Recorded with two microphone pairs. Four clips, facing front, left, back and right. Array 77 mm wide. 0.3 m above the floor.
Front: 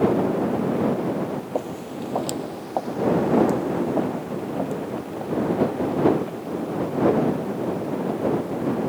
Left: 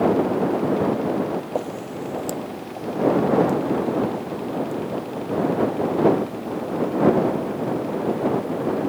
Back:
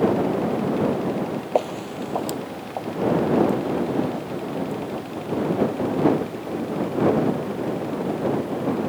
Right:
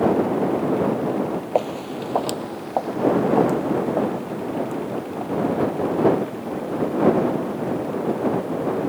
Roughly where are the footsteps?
Behind right.